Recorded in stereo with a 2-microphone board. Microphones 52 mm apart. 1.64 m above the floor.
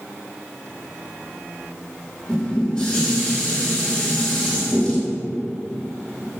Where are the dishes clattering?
20° left (ahead or behind), 1.7 m.